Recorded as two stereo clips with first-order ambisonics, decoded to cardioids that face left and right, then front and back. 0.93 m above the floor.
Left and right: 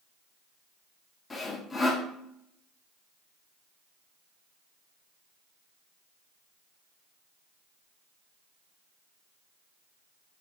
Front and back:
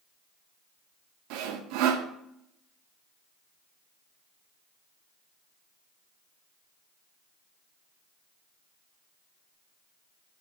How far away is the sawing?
About 1.0 m.